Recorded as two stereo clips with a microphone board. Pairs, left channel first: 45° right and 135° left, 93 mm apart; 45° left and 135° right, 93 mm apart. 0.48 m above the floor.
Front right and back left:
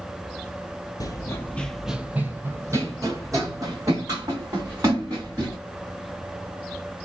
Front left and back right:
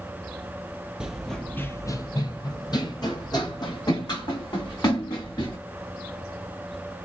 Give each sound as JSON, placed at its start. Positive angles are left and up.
{"t": 1.0, "sound": "running footsteps", "azimuth_deg": -60, "distance_m": 0.6}